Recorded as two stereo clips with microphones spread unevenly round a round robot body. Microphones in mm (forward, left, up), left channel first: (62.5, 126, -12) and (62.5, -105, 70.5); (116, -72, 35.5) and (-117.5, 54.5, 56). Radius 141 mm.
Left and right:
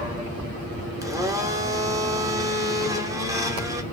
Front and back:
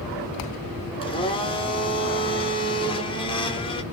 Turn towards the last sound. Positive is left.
turn(degrees=10)